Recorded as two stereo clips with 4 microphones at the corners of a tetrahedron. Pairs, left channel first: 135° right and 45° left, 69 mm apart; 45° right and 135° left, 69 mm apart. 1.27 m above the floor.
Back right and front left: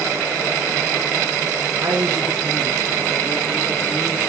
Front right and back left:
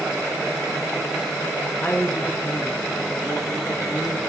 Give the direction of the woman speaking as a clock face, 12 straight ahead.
12 o'clock.